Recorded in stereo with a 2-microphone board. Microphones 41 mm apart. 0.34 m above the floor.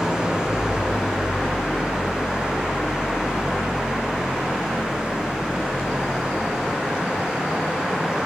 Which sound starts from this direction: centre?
An engine running, at 0.0 s.